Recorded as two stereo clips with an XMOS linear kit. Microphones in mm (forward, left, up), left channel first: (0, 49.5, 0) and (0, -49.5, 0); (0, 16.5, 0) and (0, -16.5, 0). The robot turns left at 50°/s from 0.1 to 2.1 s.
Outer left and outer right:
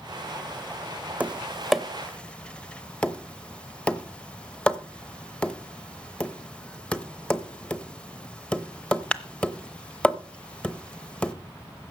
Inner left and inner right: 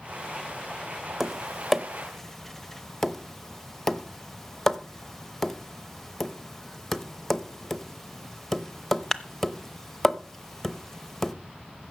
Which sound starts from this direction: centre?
Tapping, at 1.2 s.